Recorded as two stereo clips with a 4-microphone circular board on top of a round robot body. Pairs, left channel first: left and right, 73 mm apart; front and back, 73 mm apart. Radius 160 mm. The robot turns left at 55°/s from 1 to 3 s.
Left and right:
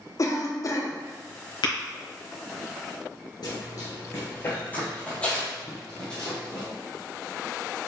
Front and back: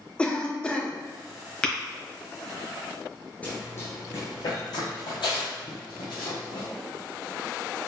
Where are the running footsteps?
70° left, 0.6 m; by 6.7 s 10° left, 2 m.